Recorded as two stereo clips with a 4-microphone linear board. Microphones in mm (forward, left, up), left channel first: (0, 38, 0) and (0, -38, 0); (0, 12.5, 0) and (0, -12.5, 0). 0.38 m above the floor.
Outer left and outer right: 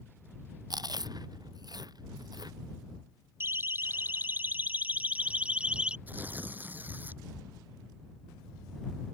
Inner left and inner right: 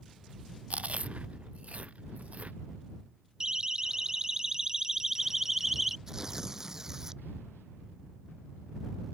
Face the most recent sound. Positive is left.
turn(degrees=-25)  # may be behind; listen again after turning